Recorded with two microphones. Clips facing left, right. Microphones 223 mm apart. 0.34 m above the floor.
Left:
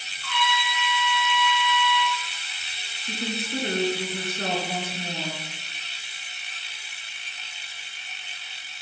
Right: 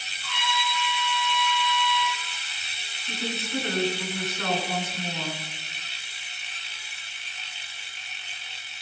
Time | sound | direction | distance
0.2 | a trumpet | 60° left (ahead or behind) | 3.5 m
3.0 | a woman speaking | 30° left (ahead or behind) | 4 m